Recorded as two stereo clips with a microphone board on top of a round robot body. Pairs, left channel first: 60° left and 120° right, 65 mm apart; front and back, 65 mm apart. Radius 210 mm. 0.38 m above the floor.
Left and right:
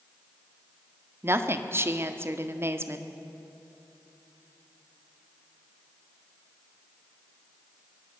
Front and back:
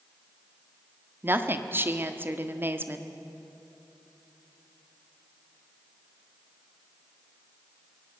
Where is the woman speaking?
145° right, 1.7 m.